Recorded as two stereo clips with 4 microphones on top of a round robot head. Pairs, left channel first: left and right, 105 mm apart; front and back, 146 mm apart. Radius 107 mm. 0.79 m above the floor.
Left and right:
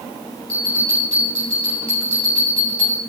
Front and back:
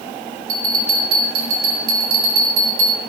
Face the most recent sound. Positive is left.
turn(degrees=170)